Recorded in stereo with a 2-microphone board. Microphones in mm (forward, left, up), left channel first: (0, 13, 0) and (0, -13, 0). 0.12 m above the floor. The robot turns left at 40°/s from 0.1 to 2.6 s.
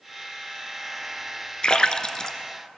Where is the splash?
40° left (ahead or behind), 0.6 m; by 2.4 s 25° left (ahead or behind), 0.6 m.